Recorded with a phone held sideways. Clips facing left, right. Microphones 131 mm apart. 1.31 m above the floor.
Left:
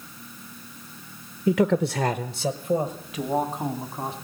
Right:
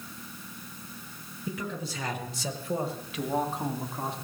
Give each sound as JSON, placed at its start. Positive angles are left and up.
{"t": 1.5, "sound": "a man speaking", "side_deg": 65, "distance_m": 0.6}